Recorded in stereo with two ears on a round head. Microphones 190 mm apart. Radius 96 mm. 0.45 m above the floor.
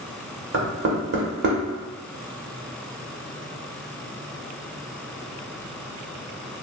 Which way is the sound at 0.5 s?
55° right (ahead or behind).